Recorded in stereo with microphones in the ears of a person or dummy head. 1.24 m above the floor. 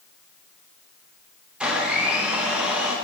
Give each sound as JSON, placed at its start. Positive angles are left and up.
{"t": 1.6, "sound": "a blender", "side_deg": -10, "distance_m": 0.9}